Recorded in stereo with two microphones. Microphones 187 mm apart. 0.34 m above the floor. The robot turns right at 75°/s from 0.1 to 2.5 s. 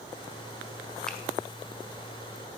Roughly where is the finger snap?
Centre.